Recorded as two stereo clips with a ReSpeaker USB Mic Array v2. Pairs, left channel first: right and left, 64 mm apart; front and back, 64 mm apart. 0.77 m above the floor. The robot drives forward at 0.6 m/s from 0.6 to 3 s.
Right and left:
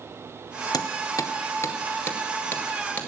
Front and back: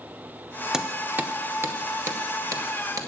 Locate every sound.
0.7 s hammering: 100° right, 0.7 m; by 3.1 s 155° right, 1.6 m